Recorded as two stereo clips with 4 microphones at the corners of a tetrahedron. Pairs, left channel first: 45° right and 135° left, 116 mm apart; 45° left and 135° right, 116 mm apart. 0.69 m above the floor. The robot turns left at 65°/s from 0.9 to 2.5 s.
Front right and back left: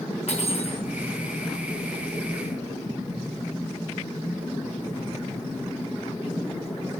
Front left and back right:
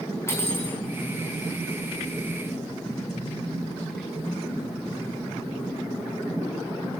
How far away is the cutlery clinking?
About 4.5 m.